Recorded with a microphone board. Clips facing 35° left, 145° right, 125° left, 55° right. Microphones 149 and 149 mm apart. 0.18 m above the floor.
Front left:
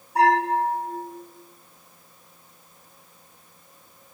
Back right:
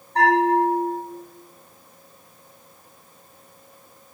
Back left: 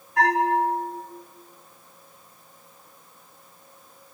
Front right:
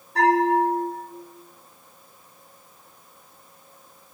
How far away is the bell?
About 6.5 m.